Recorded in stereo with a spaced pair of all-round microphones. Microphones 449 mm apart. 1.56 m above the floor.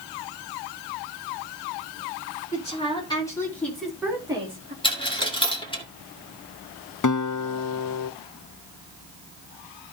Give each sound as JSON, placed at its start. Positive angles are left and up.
{"t": 2.5, "sound": "a woman speaking", "side_deg": 15, "distance_m": 5.5}
{"t": 4.8, "sound": "a dropped coin", "side_deg": 10, "distance_m": 1.8}
{"t": 7.0, "sound": "a guitar", "side_deg": 40, "distance_m": 0.6}